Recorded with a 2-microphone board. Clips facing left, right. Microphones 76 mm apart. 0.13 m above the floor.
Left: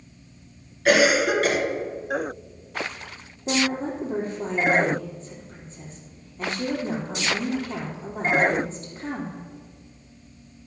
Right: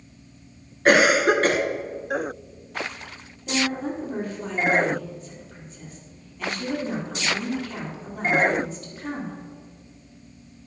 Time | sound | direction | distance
0.8 | a cough | 40° right (ahead or behind) | 1.5 m
3.5 | a woman speaking | 30° left (ahead or behind) | 4 m